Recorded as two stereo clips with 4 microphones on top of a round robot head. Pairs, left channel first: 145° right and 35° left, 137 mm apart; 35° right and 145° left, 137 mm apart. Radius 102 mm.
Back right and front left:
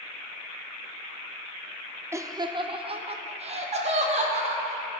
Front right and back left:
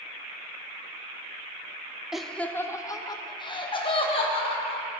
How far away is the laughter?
About 0.9 m.